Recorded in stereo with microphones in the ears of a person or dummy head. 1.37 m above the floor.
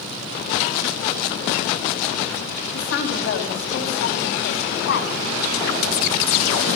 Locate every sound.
2.7 s a woman speaking: 70° left (ahead or behind), 7 m